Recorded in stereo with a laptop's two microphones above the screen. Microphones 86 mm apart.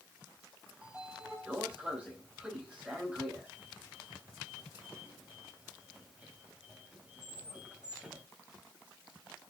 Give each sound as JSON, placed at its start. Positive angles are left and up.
{"t": 0.8, "sound": "a sliding door", "side_deg": -15, "distance_m": 2.5}